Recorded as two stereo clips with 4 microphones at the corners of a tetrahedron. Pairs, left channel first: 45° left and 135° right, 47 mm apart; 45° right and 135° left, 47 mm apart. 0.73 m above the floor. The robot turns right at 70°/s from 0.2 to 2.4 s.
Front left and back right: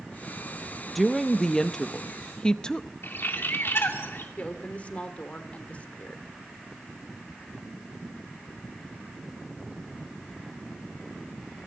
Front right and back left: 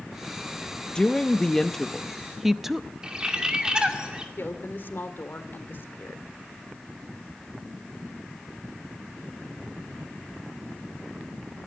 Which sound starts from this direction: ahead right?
A woman speaking, at 0.9 s.